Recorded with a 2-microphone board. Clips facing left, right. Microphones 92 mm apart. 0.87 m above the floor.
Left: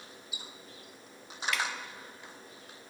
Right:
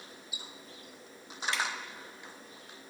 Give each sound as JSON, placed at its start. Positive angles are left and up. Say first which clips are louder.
{"t": 1.5, "sound": "dripping", "louder": "even", "side_deg": -30, "distance_m": 0.5}